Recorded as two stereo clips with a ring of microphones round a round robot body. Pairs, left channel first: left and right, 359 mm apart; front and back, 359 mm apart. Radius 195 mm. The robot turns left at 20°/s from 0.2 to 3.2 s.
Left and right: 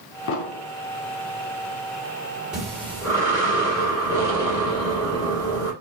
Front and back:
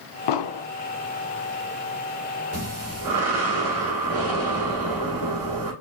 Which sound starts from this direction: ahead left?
An explosion, at 0.3 s.